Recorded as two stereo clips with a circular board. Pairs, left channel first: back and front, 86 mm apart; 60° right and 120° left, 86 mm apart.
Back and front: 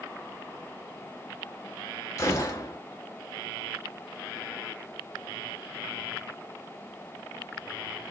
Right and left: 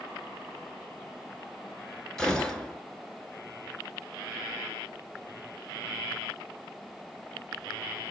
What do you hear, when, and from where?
2.2 s a gunshot: 140° right, 1.0 m